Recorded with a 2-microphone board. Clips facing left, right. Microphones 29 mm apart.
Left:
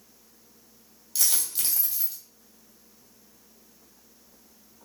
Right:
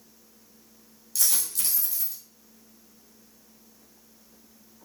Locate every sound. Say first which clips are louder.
1.1 s a dropped coin: left 1 dB; 30° left (ahead or behind), 1.3 m